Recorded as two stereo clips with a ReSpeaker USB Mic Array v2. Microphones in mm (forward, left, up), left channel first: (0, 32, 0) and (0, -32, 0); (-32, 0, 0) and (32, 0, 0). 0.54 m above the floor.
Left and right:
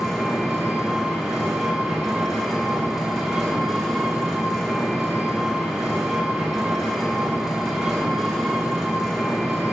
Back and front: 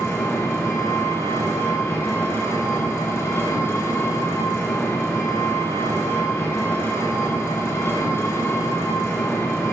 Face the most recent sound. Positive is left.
turn(degrees=-165)